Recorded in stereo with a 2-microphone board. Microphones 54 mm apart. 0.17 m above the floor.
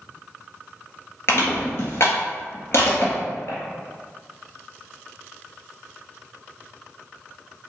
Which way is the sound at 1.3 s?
50° left (ahead or behind).